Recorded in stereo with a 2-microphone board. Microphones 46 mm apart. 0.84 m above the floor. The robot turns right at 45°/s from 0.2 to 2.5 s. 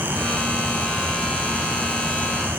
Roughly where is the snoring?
I don't hear snoring.